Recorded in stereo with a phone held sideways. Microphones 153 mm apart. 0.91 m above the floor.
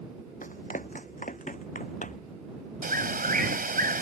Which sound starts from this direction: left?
Running footsteps, at 0.4 s.